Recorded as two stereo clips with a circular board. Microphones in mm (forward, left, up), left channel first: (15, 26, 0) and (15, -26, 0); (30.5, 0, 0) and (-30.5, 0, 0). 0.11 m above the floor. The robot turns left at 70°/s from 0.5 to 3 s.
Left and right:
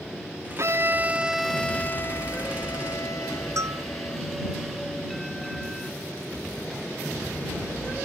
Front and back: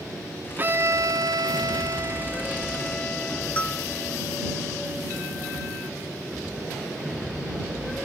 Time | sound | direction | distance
0.6 | a violin | 120° right | ?
3.6 | a bell | 70° right | ?